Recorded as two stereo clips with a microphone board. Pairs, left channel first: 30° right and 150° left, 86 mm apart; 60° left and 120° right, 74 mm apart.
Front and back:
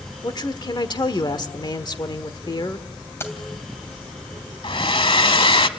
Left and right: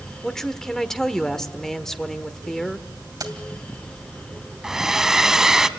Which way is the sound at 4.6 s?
35° right.